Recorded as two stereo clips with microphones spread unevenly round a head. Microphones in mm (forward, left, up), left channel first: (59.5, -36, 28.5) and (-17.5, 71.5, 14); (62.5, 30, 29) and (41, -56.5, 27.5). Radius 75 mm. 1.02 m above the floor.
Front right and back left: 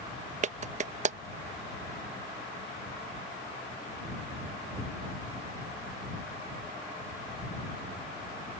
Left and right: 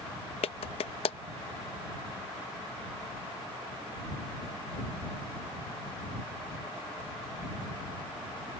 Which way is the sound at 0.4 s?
95° left.